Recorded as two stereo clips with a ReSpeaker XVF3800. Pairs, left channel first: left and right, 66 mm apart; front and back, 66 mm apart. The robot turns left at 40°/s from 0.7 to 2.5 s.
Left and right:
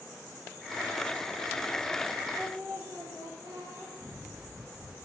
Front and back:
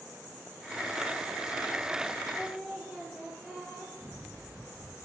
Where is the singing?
90° right, 3.5 m; by 3.9 s 95° right, 3.5 m.